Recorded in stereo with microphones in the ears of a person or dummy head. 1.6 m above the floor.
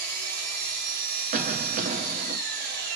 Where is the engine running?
50° right (ahead or behind), 1.8 m.